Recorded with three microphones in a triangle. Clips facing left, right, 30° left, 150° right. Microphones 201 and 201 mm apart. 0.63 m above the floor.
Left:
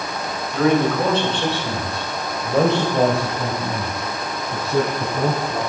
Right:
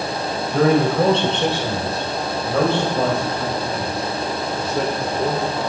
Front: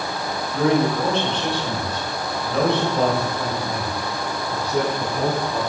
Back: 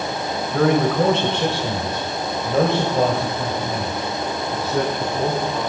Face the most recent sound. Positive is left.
turn(degrees=115)